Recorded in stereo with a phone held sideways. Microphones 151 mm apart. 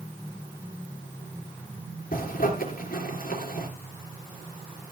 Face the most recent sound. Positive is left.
turn(degrees=70)  # may be behind; listen again after turning